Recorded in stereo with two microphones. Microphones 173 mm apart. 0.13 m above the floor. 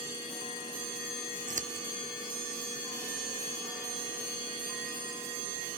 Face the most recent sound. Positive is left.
turn(degrees=-50)  # may be behind; listen again after turning